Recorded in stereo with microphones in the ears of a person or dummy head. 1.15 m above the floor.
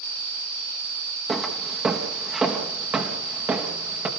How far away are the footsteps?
About 3 m.